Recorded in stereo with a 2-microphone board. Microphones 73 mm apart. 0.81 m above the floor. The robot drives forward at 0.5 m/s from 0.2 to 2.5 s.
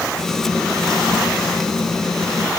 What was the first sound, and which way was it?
Only background noise.